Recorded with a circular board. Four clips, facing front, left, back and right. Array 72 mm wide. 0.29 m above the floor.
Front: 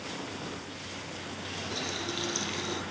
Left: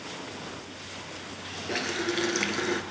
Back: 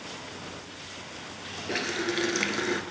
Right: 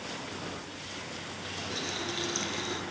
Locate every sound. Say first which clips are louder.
1.7 s a running tap: left 8 dB, back 8 dB; 145° left, 2.5 m